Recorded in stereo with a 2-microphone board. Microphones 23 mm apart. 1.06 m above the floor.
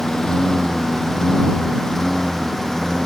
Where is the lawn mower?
25° left (ahead or behind); by 3.1 s 20° left (ahead or behind).